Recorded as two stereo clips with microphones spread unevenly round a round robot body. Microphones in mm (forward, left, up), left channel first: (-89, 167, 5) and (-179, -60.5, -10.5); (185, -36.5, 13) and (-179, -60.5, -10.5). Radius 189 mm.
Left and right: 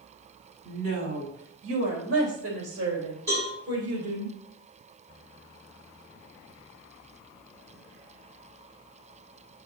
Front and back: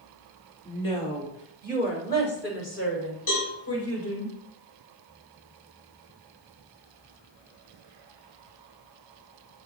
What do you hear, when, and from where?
0.7 s a woman speaking: 75° right, 2.5 m; by 4.3 s 45° right, 4 m
3.3 s a cowbell: 15° right, 4.5 m